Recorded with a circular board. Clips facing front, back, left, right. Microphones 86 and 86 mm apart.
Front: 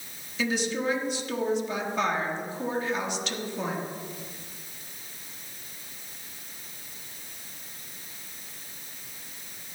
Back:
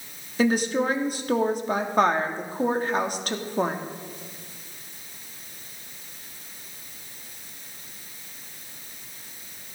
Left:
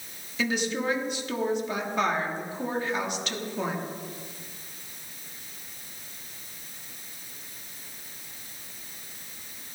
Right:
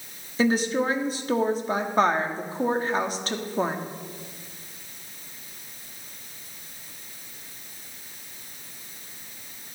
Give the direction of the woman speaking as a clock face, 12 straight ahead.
5 o'clock.